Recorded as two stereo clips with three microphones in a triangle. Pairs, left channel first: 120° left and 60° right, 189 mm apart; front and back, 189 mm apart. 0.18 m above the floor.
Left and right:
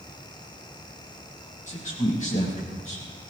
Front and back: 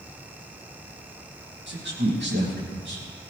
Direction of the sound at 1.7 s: 170° left.